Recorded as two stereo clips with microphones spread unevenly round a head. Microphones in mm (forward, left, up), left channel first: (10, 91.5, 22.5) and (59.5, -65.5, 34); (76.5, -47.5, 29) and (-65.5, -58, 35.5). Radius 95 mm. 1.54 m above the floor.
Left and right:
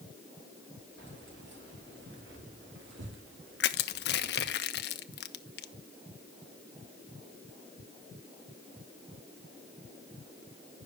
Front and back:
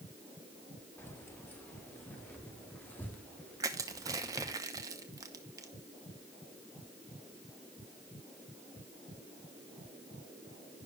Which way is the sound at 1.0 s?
70° right.